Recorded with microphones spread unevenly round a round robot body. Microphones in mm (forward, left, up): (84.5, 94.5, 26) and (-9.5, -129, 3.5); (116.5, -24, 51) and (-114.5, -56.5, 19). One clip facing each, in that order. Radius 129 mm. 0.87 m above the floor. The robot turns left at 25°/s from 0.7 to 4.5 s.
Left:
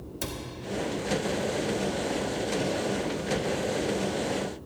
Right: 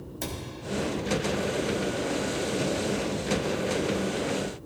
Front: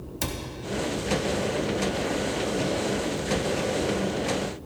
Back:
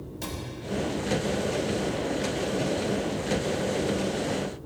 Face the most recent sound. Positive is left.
turn(degrees=-105)